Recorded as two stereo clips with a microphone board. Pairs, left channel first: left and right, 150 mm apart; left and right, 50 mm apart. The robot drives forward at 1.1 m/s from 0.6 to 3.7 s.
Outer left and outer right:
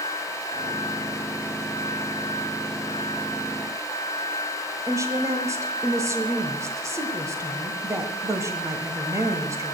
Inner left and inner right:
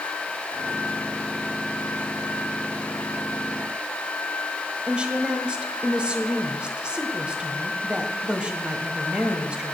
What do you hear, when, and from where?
4.9 s a woman speaking: 20° right (ahead or behind), 1.2 m